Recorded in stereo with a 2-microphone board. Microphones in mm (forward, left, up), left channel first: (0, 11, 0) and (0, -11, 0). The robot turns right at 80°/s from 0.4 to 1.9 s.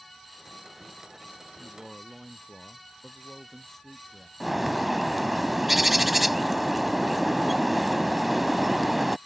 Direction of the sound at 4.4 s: 5° right (ahead or behind).